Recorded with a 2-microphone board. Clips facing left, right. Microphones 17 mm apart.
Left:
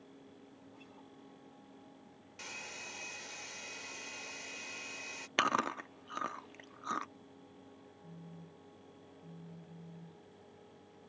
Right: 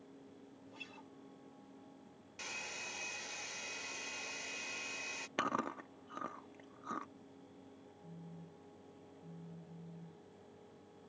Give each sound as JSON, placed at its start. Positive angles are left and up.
{"t": 0.7, "sound": "a guitar", "side_deg": -65}
{"t": 2.4, "sound": "a hair dryer", "side_deg": -5}
{"t": 5.4, "sound": "chewing", "side_deg": 60}
{"t": 8.0, "sound": "a phone buzzing", "side_deg": 45}